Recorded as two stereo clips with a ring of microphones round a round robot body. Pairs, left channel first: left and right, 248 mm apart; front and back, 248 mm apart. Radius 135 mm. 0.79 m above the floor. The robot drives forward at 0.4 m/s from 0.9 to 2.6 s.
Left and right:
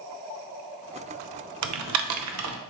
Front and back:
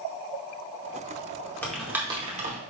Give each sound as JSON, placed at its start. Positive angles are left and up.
{"t": 1.6, "sound": "typing on a keyboard", "azimuth_deg": -85, "distance_m": 0.6}